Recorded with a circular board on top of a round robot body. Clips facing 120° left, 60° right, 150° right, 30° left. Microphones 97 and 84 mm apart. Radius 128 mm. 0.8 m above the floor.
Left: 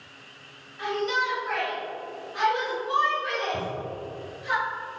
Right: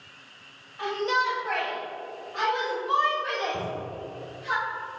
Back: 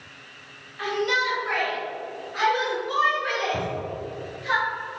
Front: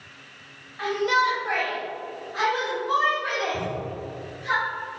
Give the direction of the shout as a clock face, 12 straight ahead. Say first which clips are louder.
Right 1 dB, front 3 dB; 1 o'clock.